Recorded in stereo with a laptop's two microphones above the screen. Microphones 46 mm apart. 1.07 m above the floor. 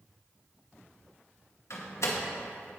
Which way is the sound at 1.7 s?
70° left (ahead or behind).